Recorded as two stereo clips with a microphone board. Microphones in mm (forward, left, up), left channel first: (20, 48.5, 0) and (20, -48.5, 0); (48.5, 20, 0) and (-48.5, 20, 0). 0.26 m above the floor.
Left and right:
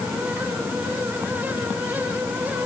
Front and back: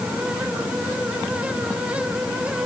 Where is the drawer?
No drawer in this recording.